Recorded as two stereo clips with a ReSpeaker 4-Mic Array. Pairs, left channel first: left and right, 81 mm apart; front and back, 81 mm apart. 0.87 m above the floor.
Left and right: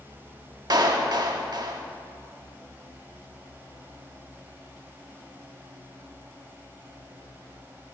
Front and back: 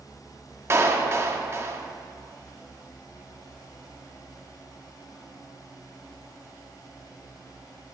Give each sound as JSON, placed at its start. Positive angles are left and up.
{"t": 0.7, "sound": "a clap", "azimuth_deg": -125, "distance_m": 1.0}